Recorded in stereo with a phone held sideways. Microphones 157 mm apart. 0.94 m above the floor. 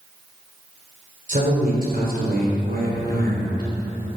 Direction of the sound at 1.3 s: 55° right (ahead or behind).